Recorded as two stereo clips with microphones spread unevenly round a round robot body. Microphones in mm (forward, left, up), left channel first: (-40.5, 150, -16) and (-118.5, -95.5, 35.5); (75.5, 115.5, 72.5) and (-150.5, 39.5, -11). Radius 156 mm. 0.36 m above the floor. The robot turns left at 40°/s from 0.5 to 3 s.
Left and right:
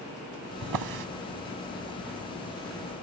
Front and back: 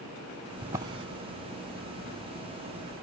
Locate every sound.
0.6 s a drawer: 80° right; by 1.1 s 100° right